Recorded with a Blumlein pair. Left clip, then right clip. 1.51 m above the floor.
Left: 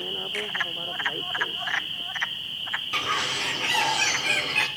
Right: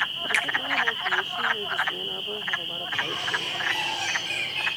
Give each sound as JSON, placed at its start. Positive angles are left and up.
{"t": 0.3, "sound": "a finger snap", "azimuth_deg": -40, "distance_m": 2.5}
{"t": 2.9, "sound": "a bird", "azimuth_deg": 35, "distance_m": 5.5}